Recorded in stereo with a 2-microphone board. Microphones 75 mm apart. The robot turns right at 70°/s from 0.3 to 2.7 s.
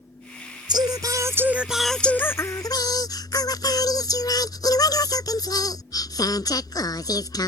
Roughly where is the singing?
Right.